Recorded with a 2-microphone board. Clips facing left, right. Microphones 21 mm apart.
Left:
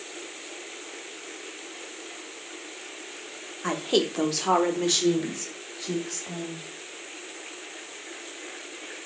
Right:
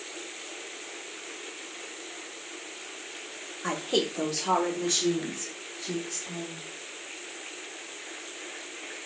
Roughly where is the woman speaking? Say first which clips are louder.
Left 3 dB; centre.